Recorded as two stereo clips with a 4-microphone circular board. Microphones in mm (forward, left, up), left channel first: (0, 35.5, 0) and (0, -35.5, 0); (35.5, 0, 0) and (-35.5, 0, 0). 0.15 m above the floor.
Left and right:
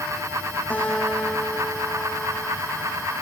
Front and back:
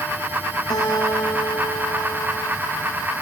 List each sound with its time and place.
0.7 s a guitar: 20° left, 2.5 m